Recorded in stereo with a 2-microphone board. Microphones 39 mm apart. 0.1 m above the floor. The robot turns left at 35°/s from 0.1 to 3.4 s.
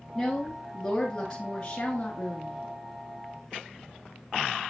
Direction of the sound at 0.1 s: Centre (ahead or behind).